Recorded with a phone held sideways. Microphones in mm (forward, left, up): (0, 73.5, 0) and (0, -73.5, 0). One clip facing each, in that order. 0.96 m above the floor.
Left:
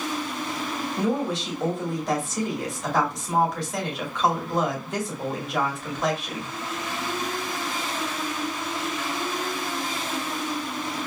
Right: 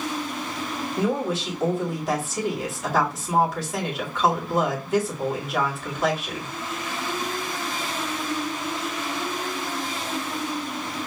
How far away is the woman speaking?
About 2.5 m.